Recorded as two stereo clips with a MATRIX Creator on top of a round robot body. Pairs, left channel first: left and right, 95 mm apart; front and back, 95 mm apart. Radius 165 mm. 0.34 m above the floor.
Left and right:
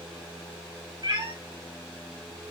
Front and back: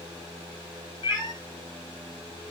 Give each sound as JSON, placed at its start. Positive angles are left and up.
{"t": 1.0, "sound": "a cat meowing", "azimuth_deg": -50, "distance_m": 2.5}